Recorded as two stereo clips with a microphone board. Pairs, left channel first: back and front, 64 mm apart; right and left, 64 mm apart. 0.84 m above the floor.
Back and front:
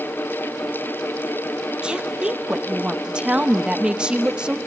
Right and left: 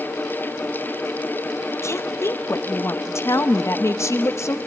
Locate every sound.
1.8 s a woman speaking: 70° right, 0.7 m